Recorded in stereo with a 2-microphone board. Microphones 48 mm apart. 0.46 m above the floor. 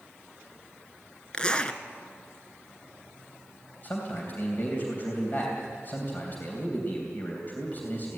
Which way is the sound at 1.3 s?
20° left (ahead or behind).